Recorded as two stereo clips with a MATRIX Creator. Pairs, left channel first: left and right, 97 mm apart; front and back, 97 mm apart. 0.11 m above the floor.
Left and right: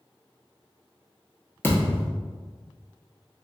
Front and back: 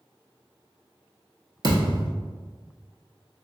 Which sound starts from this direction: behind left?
A thud, at 1.6 s.